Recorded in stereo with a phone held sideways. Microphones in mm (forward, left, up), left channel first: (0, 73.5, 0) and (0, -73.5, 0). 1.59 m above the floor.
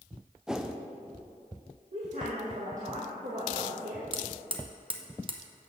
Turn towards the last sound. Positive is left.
turn(degrees=-35)  # may be behind; listen again after turning